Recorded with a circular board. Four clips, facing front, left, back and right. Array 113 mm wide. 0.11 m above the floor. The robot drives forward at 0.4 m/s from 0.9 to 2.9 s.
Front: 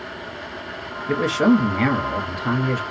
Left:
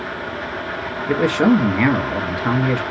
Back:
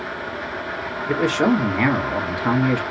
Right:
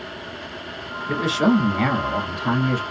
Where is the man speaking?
100° left, 1.4 m; by 2.8 s 135° left, 1.6 m.